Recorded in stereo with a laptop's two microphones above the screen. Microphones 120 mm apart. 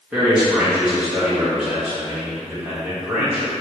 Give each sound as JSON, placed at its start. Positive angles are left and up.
{"t": 0.1, "sound": "a man speaking", "side_deg": -10, "distance_m": 1.3}